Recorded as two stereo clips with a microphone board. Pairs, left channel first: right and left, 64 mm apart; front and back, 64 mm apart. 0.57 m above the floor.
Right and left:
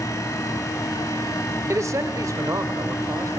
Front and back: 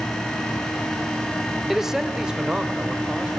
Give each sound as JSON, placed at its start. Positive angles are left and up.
{"t": 1.7, "sound": "a man speaking", "azimuth_deg": 95, "distance_m": 1.6}